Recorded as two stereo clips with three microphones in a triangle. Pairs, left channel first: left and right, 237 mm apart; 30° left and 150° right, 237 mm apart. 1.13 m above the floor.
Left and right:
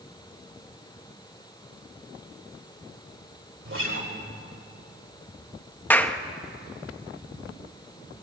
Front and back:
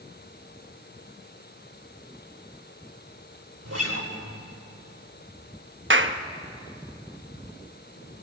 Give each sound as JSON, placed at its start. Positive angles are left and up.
{"t": 3.6, "sound": "a guitar", "azimuth_deg": -125, "distance_m": 3.5}
{"t": 5.9, "sound": "a clap", "azimuth_deg": 175, "distance_m": 1.1}